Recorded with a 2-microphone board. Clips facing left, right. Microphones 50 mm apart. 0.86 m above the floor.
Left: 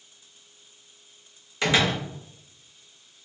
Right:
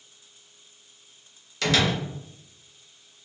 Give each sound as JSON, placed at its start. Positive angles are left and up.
{"t": 1.6, "sound": "a door slam", "side_deg": 20, "distance_m": 0.7}